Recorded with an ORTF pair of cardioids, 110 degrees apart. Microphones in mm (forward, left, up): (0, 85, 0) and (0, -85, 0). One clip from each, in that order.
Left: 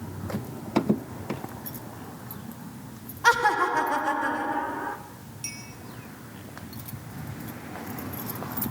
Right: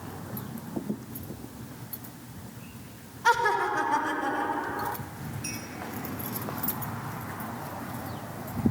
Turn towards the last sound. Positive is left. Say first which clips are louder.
# even
turn(degrees=65)